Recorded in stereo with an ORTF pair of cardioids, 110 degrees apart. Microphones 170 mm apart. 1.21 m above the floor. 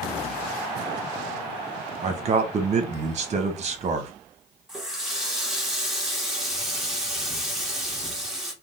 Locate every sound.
2.0 s a man speaking: 40° right, 1.0 m
4.7 s a running tap: straight ahead, 1.2 m